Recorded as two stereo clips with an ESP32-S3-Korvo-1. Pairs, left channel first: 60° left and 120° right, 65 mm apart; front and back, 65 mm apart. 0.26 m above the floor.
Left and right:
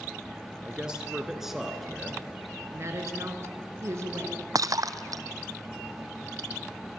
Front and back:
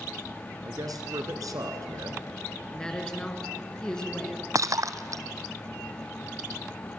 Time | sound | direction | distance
0.7 | a man speaking | 165° left | 3 m
2.7 | a woman speaking | 80° right | 3.5 m
4.5 | breaking glass | 145° right | 1.1 m